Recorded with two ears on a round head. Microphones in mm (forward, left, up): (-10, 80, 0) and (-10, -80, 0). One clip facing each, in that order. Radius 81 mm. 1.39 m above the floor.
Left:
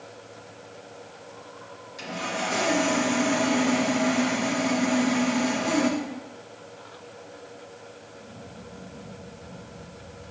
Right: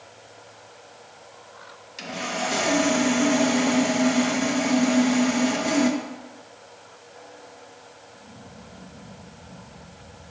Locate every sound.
2.0 s sawing: 30° right (ahead or behind), 1.2 m